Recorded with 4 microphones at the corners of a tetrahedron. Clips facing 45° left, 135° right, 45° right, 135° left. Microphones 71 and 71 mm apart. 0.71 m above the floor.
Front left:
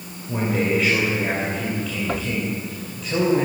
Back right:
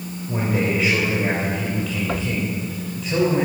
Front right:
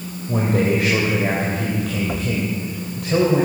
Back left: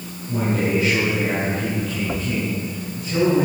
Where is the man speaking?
45° right, 3.5 m.